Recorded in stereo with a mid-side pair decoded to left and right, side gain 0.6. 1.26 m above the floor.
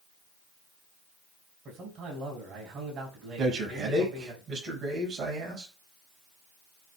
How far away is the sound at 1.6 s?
About 5.5 m.